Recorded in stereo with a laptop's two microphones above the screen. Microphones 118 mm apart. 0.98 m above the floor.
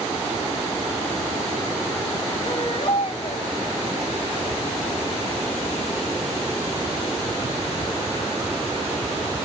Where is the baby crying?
50° left (ahead or behind), 2.5 m.